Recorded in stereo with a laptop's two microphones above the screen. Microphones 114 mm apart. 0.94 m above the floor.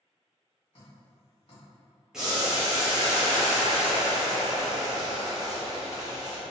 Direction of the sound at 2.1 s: 5° right (ahead or behind).